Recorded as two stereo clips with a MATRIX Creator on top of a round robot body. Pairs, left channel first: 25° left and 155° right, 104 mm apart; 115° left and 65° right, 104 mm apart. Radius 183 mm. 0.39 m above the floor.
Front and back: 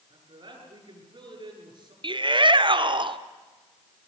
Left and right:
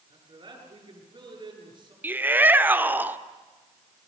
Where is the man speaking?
115° right, 8.5 m.